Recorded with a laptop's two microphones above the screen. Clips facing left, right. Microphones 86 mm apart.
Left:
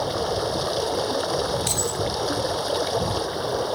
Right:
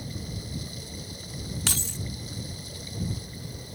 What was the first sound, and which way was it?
Running water, 70° left (ahead or behind).